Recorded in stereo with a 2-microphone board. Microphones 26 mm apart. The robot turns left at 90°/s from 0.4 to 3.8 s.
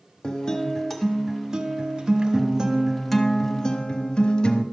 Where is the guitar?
55° left, 1.0 m; by 4.6 s 110° left, 1.0 m.